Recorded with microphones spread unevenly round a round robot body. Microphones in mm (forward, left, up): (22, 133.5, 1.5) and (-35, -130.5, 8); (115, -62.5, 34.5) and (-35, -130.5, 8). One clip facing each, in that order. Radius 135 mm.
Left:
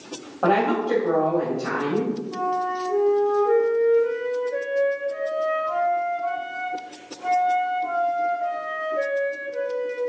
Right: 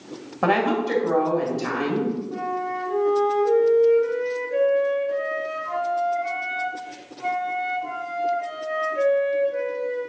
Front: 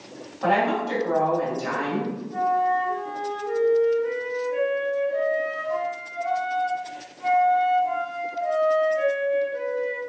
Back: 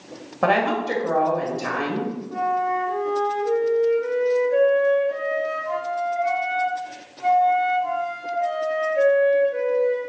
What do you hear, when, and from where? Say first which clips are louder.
0.4 s a woman speaking: left 1 dB, back 2 dB; 145° right, 2.5 m
2.3 s a flute: left 1 dB, front 2 dB; 145° right, 1.9 m